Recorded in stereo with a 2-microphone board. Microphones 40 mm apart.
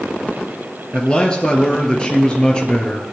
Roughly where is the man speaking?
Left.